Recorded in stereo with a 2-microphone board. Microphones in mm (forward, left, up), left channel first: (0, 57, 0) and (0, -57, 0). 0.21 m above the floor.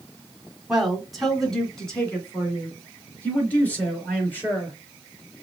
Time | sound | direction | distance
0.7 | a man speaking | 5° right (ahead or behind) | 1.6 m